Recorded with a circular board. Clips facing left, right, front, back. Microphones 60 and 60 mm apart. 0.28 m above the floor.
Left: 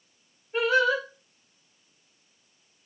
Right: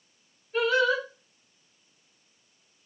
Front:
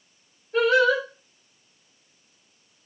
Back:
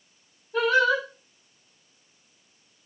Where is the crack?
I don't hear a crack.